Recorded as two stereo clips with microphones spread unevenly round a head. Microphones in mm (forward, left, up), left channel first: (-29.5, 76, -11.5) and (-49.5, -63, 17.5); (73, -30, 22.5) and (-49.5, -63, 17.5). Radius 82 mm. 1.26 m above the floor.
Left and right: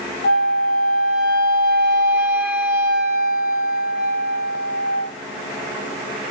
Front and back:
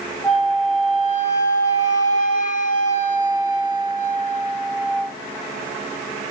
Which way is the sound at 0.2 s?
90° left.